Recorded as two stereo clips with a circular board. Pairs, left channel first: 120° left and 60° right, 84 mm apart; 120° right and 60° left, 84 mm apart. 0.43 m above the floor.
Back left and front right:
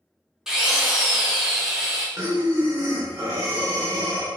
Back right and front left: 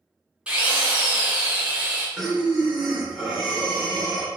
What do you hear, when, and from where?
0.5 s a drill: 10° left, 0.6 m
2.2 s breathing: 30° right, 0.8 m